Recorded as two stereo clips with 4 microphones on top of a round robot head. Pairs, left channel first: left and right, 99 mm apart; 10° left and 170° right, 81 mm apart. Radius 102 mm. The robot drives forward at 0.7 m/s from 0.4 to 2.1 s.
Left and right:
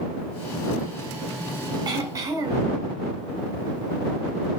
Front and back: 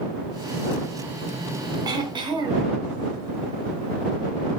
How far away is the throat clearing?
About 0.6 m.